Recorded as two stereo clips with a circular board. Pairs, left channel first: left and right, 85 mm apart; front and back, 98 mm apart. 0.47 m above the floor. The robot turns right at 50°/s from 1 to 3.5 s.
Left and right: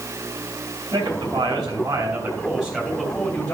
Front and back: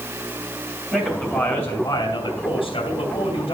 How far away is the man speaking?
About 3 m.